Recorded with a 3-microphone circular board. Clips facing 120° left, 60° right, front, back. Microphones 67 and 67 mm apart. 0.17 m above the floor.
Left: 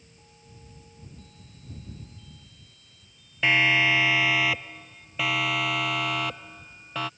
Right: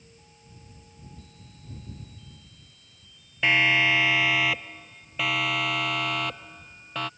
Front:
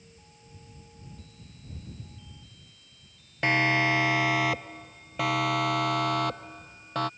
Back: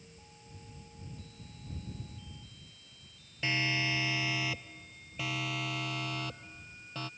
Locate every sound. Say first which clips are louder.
3.4 s a siren: even, front 9 dB; 30° left; by 7.1 s 35° left